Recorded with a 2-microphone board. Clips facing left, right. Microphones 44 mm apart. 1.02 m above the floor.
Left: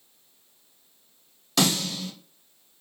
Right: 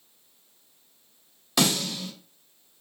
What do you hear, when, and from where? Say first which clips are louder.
1.6 s a snare drum: even; 5° right (ahead or behind), 1.4 m